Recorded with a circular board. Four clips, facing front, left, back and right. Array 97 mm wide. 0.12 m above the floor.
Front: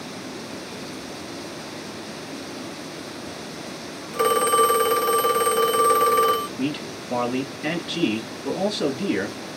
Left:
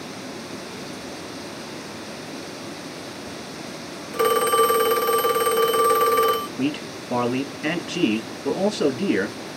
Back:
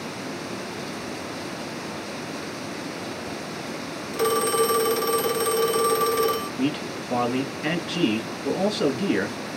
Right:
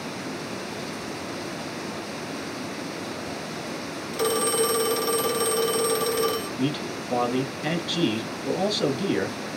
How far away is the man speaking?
About 1.3 m.